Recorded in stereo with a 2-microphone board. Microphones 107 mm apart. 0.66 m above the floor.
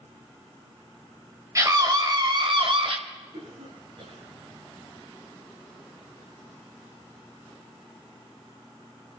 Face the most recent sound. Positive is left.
turn(degrees=-70)  # may be behind; listen again after turning